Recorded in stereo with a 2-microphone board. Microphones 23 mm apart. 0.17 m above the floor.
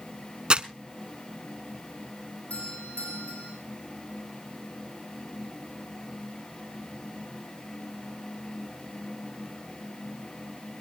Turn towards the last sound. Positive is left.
turn(degrees=80)